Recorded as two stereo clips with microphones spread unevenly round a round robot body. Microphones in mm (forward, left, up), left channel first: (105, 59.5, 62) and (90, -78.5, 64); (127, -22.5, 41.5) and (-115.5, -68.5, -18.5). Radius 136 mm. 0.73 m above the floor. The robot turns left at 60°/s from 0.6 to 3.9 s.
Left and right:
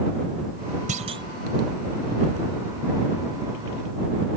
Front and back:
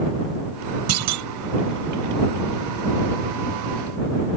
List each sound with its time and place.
0.9 s a clunk: 145° right; by 1.3 s 170° right